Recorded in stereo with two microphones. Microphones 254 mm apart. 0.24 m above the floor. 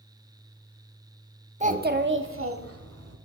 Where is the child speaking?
25° right (ahead or behind), 0.7 m; by 3.1 s 65° right (ahead or behind), 1.4 m.